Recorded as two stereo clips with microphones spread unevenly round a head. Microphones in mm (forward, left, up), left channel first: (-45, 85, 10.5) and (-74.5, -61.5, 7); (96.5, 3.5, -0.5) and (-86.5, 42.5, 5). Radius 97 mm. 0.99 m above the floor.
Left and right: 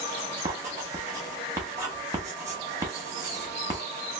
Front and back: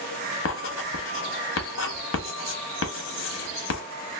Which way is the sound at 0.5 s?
25° right.